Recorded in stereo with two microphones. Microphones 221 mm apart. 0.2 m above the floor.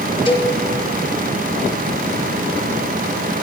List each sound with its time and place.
0.3 s a cowbell: 25° left (ahead or behind), 1.0 m